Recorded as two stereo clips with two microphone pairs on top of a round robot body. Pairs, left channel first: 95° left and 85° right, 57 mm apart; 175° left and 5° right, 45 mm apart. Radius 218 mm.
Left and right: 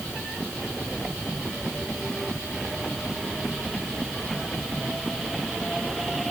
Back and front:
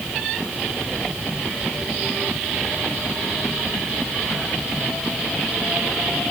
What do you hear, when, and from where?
Only background noise.